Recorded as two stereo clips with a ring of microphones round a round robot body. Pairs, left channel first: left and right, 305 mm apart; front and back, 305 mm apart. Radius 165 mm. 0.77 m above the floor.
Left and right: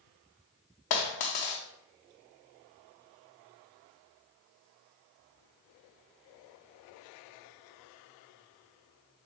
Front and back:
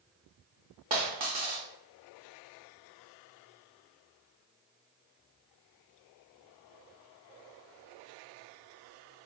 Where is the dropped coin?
105° left, 0.5 m.